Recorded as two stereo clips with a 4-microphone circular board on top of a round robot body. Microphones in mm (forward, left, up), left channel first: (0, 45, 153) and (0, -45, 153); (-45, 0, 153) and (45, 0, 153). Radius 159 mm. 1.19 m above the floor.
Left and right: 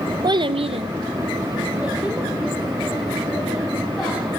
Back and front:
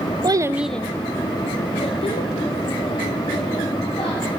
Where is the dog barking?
I don't hear a dog barking.